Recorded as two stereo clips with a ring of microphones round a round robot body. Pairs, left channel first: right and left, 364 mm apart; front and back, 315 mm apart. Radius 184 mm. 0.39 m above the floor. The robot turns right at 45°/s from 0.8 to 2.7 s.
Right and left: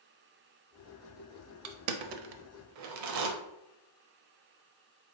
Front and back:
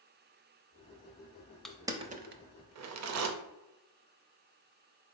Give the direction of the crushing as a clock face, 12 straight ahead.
9 o'clock.